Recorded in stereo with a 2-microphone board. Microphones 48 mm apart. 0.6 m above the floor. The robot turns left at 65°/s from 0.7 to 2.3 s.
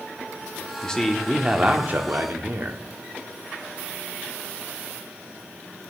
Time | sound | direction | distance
0.8 | a man speaking | 20° left | 1.2 m